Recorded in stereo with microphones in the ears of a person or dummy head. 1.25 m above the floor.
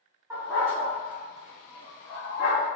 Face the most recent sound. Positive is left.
turn(degrees=45)  # may be behind; listen again after turning